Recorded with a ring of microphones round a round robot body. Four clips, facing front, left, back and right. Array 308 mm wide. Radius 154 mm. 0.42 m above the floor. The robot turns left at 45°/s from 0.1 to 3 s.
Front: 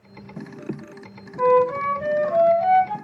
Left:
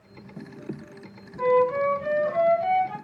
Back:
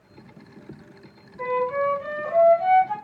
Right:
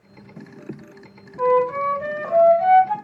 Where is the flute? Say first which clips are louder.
Right 2 dB, front 6 dB; 25° right, 3 m; by 2.9 s 95° right, 3 m.